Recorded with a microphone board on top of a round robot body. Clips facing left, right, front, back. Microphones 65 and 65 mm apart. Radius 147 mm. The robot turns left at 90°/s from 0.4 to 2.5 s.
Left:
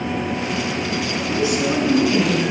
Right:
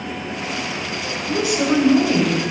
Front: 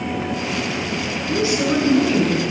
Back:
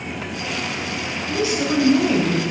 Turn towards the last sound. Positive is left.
turn(degrees=-150)